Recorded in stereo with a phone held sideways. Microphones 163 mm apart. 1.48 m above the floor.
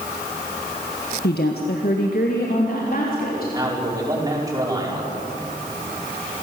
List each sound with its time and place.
1.2 s a woman speaking: 80° left, 1.4 m; by 3.4 s 65° left (ahead or behind), 4 m
3.5 s a man speaking: 20° right (ahead or behind), 5 m